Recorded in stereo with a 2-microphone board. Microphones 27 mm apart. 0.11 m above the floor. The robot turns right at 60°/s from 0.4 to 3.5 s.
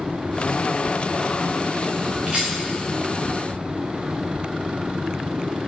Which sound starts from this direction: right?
A rattle, at 2.3 s.